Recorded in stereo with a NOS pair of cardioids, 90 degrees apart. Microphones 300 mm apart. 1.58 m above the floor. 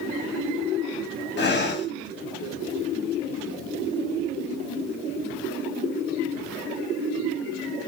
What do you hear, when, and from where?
1.4 s breathing: 35° left, 1.0 m